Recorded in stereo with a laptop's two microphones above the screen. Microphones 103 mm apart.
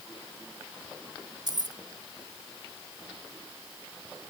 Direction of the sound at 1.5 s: 40° right (ahead or behind).